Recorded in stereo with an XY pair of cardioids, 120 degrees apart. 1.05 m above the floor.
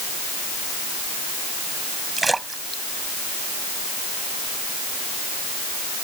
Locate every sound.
2.2 s a splash: 15° right